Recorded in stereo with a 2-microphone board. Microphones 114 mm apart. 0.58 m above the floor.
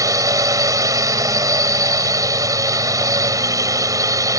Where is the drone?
30° right (ahead or behind).